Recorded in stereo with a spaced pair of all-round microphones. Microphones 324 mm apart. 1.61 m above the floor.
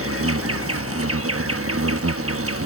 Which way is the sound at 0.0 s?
45° right (ahead or behind).